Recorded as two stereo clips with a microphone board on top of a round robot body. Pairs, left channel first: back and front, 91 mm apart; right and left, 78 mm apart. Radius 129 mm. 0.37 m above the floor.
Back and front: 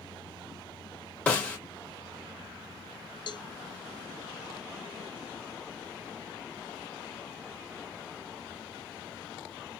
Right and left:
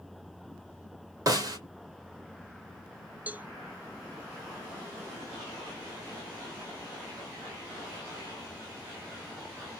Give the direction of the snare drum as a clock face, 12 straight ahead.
8 o'clock.